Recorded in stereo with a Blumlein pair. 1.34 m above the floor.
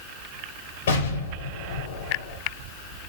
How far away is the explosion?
About 6.5 m.